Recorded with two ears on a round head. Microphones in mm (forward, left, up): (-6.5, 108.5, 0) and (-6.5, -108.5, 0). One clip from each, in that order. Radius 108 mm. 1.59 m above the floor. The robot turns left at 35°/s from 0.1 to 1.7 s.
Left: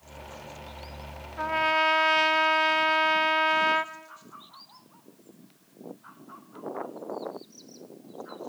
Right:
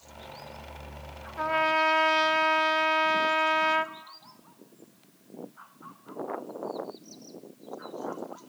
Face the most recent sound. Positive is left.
turn(degrees=5)  # may be behind; listen again after turning